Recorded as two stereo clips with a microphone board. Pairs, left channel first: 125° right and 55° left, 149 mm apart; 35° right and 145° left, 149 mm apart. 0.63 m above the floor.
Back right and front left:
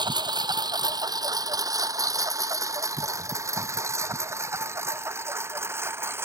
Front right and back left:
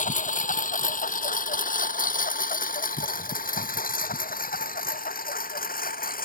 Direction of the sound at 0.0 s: 5° right.